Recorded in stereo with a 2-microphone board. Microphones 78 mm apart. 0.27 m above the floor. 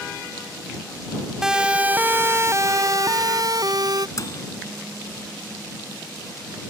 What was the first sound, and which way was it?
A siren, 5° right (ahead or behind).